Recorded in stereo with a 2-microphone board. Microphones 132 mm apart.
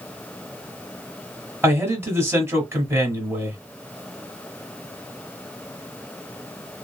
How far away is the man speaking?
About 1.3 m.